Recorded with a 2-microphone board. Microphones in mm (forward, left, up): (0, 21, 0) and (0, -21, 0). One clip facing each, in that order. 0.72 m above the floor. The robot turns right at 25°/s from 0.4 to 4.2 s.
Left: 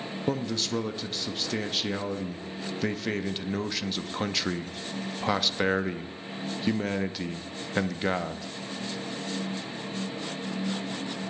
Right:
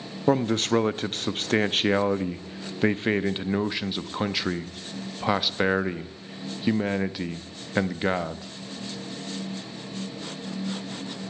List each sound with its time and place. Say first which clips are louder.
0.3 s a man speaking: right 8 dB; 105° right, 0.5 m; by 8.4 s 10° right, 0.5 m